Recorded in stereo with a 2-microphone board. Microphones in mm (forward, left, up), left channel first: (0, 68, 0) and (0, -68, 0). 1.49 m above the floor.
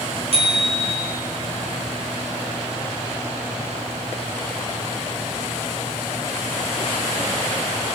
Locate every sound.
0.3 s a bicycle bell: 50° right (ahead or behind), 4.5 m